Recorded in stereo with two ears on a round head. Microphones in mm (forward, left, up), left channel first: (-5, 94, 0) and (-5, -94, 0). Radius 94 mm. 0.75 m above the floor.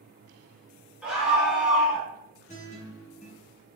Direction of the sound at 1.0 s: 5° right (ahead or behind).